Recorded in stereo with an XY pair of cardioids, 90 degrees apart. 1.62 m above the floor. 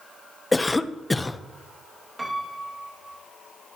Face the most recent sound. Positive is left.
turn(degrees=-15)